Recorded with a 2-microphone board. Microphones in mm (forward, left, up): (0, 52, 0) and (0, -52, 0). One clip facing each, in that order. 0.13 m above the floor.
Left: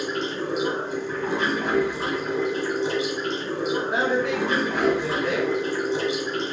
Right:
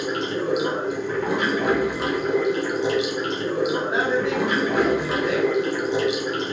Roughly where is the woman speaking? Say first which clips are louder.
Right 1 dB; right.